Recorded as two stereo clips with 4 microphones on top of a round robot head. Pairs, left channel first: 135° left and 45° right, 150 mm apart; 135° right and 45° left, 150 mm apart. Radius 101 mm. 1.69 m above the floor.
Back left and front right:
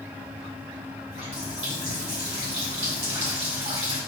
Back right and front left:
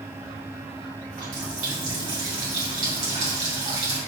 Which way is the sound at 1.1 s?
5° left.